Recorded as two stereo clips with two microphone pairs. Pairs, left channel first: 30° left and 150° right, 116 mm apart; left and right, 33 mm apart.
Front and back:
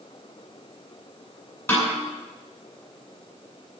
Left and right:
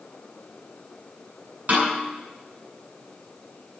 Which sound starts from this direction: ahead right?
A snare drum, at 1.7 s.